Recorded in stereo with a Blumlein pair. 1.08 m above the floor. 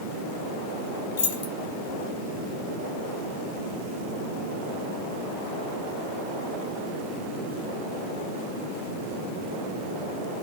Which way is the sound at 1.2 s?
55° left.